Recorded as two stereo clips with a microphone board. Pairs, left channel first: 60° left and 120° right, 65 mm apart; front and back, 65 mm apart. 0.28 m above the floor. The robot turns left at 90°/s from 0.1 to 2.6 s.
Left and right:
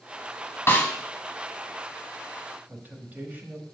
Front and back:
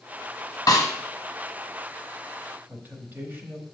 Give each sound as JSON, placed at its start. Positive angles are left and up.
{"t": 0.7, "sound": "a snare drum", "azimuth_deg": 10, "distance_m": 1.3}
{"t": 2.7, "sound": "a man speaking", "azimuth_deg": -160, "distance_m": 1.0}